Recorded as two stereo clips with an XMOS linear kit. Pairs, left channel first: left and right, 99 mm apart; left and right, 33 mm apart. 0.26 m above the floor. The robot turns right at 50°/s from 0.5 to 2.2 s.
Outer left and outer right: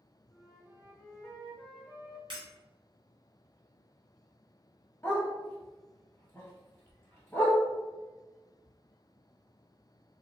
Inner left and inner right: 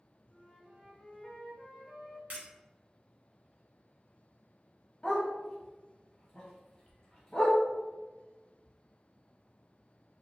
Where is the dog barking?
25° left (ahead or behind), 1.6 m.